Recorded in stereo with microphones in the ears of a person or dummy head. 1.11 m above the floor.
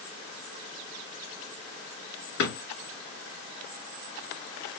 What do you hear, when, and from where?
2.4 s a drawer: 75° left (ahead or behind), 3 m